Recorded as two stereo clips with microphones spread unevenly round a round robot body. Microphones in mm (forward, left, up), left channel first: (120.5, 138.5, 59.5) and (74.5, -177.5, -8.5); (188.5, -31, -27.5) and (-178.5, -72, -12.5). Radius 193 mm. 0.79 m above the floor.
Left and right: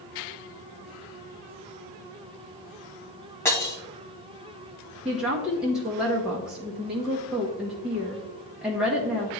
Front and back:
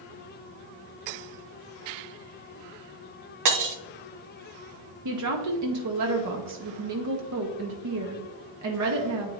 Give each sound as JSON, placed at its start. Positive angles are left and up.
{"t": 3.5, "sound": "breaking glass", "azimuth_deg": 155, "distance_m": 0.8}
{"t": 5.0, "sound": "a woman speaking", "azimuth_deg": -170, "distance_m": 0.8}